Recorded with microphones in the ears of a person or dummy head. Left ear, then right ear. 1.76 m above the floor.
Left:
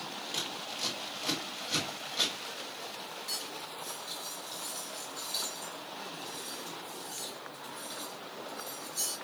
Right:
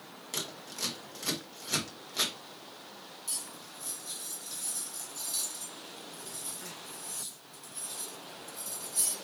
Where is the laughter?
I don't hear laughter.